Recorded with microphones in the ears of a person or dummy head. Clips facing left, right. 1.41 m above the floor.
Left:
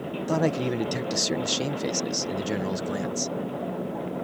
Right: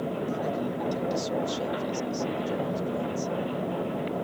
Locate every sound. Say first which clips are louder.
0.3 s a man speaking: left 5 dB; 75° left (ahead or behind)